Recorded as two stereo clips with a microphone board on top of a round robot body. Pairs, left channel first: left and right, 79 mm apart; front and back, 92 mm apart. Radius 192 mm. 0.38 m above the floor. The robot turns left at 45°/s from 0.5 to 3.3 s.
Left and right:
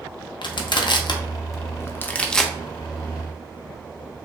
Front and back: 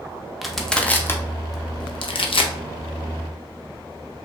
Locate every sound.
0.4 s crushing: 90° left, 0.6 m; by 2.5 s straight ahead, 0.6 m